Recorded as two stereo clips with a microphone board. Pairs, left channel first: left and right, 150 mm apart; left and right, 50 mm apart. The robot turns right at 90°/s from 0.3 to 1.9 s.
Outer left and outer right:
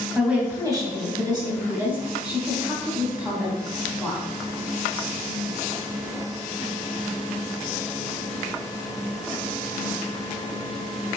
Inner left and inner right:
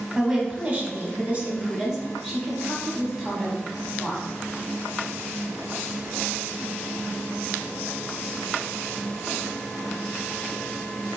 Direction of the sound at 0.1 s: 10° right (ahead or behind).